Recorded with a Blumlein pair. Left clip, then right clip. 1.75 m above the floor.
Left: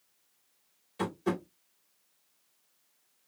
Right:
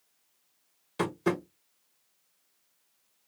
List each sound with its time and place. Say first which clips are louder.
1.0 s tapping: right 3 dB; 30° right, 1.3 m